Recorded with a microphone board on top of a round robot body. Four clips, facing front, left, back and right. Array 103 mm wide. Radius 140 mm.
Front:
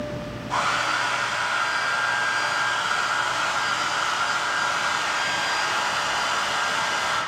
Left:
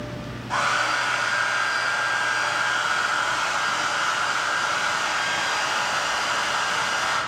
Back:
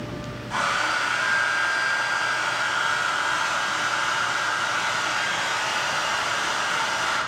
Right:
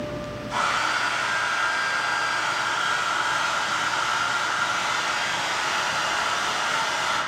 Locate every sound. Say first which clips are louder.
0.5 s a hair dryer: left 2 dB, front 1 dB; 70° left, 4 m